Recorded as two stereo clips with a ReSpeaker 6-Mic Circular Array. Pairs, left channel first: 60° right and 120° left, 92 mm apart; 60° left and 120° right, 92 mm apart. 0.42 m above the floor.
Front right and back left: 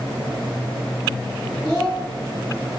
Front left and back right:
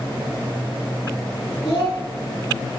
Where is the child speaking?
25° left, 1.7 m.